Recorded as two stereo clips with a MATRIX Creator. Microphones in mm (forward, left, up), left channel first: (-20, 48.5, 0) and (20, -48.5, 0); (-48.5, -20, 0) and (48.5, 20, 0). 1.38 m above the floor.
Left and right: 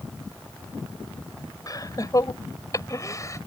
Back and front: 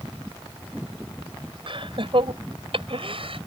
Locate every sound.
1.7 s laughter: 60° left; by 3.4 s 50° left